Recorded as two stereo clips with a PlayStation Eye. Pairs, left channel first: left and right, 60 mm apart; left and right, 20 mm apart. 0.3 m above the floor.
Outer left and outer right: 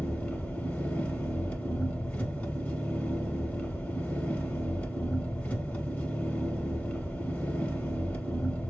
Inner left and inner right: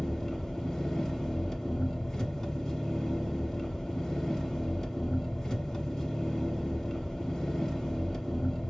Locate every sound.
0.0 s an engine running: 25° left (ahead or behind), 0.9 m